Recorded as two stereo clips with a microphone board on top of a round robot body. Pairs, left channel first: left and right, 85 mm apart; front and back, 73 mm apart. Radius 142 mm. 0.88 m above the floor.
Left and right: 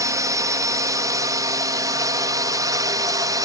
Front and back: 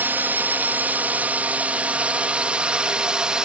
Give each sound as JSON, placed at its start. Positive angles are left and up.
{"t": 0.0, "sound": "a drone", "azimuth_deg": -125}